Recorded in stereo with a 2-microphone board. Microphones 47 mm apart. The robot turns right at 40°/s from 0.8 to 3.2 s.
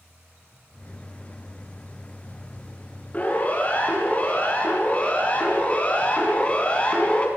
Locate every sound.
3.1 s a siren: 30° left (ahead or behind), 8 m; by 7.3 s 25° left (ahead or behind), 5.5 m